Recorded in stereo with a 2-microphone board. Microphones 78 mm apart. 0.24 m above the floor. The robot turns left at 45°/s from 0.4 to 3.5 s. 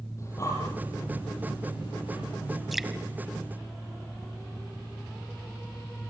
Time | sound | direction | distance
0.2 | breathing | 35° left (ahead or behind) | 10 m
2.7 | dripping | centre (ahead or behind) | 1.4 m